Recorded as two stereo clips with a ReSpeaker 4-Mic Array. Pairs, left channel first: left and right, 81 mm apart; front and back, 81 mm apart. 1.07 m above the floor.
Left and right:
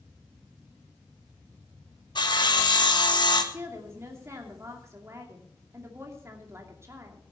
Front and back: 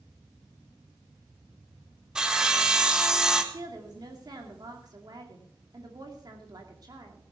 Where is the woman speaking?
145° right, 2.5 m.